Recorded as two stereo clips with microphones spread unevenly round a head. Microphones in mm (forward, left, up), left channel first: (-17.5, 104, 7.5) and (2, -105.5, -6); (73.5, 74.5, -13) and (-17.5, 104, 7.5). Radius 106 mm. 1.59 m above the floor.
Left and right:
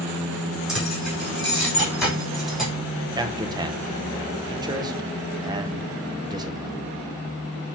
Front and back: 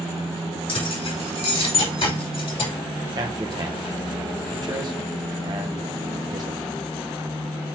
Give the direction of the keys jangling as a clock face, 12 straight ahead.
12 o'clock.